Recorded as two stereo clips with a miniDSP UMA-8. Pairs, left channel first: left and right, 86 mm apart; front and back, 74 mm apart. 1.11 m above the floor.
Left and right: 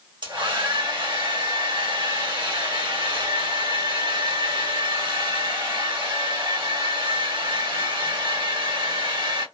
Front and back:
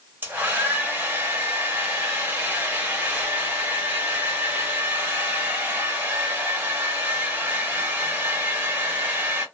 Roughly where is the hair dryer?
Behind right.